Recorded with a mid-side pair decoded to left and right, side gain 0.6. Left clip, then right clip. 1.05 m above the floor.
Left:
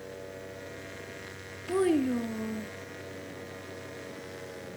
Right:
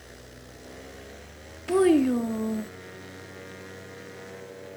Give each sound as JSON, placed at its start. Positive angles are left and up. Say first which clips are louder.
{"t": 1.7, "sound": "a child speaking", "louder": "right 6 dB", "azimuth_deg": -30, "distance_m": 0.5}